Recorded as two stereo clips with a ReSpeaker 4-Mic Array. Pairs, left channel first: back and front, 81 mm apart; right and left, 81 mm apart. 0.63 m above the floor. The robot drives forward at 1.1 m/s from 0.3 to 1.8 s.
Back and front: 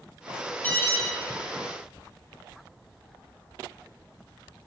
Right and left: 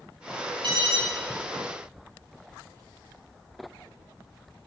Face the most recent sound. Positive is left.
turn(degrees=120)